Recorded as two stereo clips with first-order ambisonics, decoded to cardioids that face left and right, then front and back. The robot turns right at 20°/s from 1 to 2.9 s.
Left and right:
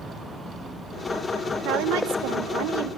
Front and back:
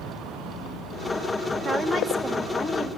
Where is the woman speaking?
105° right, 2.5 m; by 2.9 s 80° right, 2.5 m.